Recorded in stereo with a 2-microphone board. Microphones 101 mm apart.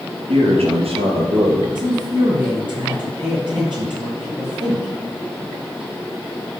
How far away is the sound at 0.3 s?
About 4 m.